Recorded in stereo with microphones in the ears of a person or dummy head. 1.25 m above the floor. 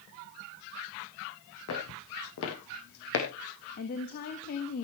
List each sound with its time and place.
1.7 s footsteps: 75° left (ahead or behind), 4.5 m
3.8 s a woman speaking: 50° left (ahead or behind), 1.8 m